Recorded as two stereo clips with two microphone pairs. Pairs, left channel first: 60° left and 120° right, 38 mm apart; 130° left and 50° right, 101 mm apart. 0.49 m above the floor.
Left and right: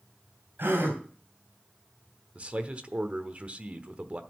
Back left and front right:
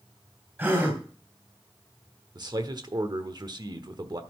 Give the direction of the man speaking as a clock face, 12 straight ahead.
3 o'clock.